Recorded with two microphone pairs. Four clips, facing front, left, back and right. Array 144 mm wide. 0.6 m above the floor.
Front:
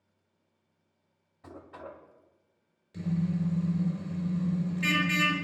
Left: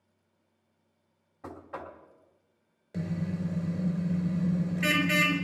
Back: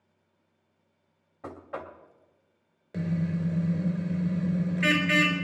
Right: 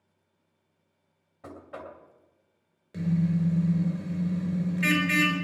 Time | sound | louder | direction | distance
1.4 | knocking | even, back 6 dB | straight behind | 2 m
2.9 | a car horn | right 6 dB, back 1 dB | straight behind | 4.5 m